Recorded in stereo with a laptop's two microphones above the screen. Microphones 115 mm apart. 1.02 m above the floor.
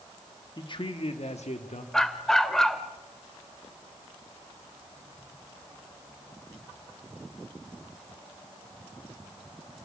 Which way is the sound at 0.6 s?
40° left (ahead or behind).